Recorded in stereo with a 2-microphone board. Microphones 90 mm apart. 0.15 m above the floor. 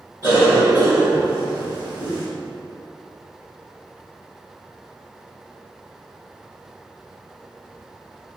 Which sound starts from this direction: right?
A cough, at 0.2 s.